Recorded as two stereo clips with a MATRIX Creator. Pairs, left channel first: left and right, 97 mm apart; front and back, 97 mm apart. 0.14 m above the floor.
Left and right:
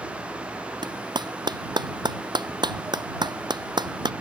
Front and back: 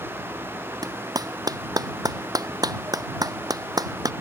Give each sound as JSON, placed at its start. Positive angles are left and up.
{"t": 0.8, "sound": "a clap", "azimuth_deg": -130}